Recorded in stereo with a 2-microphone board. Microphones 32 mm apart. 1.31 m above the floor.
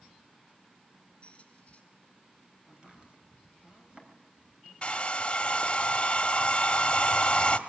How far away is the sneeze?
No sneeze in this recording.